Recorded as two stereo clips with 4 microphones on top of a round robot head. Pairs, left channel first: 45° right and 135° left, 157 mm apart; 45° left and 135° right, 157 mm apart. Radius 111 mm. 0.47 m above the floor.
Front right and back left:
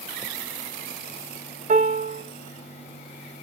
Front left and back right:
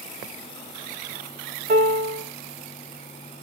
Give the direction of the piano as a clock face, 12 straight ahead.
6 o'clock.